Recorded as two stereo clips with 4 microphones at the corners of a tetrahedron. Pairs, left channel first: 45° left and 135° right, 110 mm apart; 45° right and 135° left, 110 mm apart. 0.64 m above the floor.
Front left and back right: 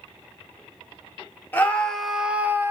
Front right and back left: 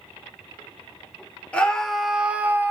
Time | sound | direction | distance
1.5 | a scream | 10° left | 0.7 m